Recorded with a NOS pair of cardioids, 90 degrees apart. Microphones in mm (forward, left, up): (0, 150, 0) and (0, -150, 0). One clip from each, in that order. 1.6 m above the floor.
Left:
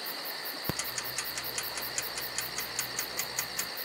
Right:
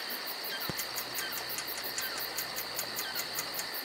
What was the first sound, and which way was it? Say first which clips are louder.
Ticking: left 2 dB; 25° left.